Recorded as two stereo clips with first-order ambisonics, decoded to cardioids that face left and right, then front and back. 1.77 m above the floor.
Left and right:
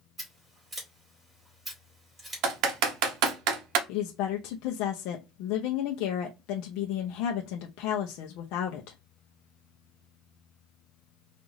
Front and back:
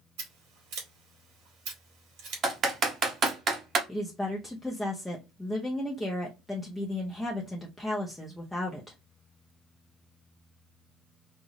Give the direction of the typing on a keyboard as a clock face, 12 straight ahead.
4 o'clock.